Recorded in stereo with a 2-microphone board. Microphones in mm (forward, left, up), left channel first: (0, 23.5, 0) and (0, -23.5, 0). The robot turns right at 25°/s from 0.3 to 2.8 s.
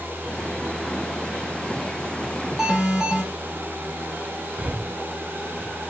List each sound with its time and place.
2.6 s an alarm: 10° right (ahead or behind), 5 m; by 3.2 s 15° right (ahead or behind), 5 m
4.6 s breathing: 25° right (ahead or behind), 0.8 m